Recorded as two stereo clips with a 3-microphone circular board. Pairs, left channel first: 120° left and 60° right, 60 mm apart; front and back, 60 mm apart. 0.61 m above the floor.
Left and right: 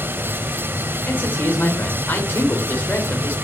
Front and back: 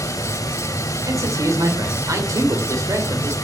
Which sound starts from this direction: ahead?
Running water, at 0.0 s.